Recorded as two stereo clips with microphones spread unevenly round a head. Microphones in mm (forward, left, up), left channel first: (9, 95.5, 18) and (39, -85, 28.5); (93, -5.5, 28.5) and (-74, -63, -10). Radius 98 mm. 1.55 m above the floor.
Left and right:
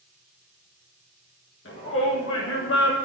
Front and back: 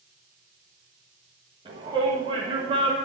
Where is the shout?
130° left, 1.8 m.